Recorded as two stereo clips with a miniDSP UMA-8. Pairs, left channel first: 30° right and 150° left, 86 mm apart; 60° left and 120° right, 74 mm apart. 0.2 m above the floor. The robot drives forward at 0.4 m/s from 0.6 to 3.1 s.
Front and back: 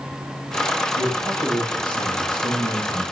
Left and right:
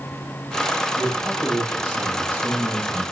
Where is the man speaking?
Straight ahead, 7 m; by 3.0 s 5° right, 6 m.